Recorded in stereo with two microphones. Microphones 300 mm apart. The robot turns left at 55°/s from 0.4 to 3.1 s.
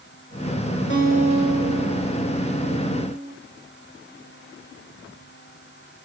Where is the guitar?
135° left, 1.4 m; by 3.3 s 15° left, 1.4 m.